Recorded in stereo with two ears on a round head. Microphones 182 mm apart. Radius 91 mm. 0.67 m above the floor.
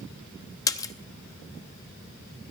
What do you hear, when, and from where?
0.7 s a splash: 15° left (ahead or behind), 0.6 m